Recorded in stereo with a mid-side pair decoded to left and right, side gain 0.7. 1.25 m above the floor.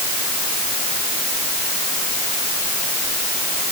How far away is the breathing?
No breathing in this recording.